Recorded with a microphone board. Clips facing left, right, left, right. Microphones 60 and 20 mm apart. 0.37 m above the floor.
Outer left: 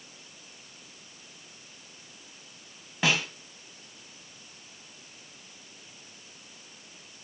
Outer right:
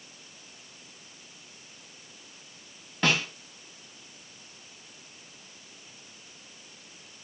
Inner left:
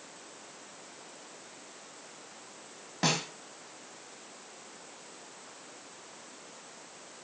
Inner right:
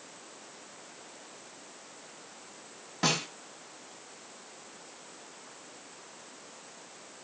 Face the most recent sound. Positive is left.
turn(degrees=5)  # may be behind; listen again after turning